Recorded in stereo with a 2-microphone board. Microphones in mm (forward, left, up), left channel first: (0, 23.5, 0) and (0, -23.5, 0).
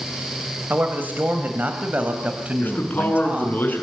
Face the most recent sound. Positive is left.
turn(degrees=45)  # may be behind; listen again after turning